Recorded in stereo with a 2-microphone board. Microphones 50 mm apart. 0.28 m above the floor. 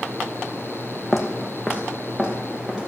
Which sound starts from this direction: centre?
Footsteps, at 1.1 s.